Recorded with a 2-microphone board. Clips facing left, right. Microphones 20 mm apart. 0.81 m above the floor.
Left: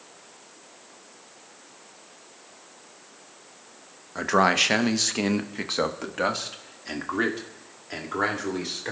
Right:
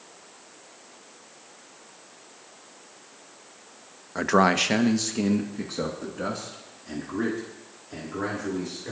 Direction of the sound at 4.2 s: 10° right (ahead or behind).